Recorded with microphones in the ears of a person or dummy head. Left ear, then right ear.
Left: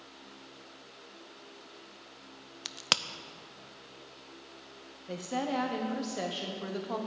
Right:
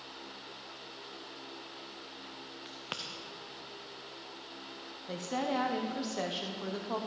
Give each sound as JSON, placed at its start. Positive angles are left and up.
{"t": 2.6, "sound": "a crack", "side_deg": 60, "distance_m": 0.5}
{"t": 5.1, "sound": "a woman speaking", "side_deg": -10, "distance_m": 0.9}